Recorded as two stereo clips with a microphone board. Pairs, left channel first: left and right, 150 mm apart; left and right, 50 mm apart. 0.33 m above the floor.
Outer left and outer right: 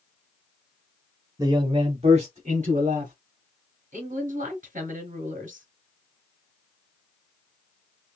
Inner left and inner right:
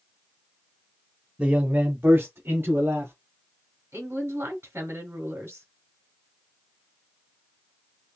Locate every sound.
1.4 s a man speaking: 25° right (ahead or behind), 0.9 m; by 3.1 s 60° right (ahead or behind), 2.5 m
3.9 s a woman speaking: 65° right (ahead or behind), 2 m